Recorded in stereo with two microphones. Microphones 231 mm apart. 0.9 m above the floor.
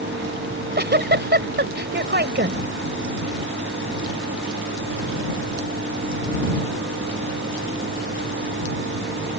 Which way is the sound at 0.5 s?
50° right (ahead or behind).